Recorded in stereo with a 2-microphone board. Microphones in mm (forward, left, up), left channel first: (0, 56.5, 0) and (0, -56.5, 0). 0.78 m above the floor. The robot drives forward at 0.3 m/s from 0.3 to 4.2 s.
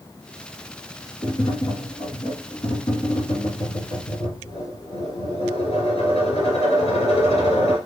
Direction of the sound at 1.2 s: 50° left (ahead or behind).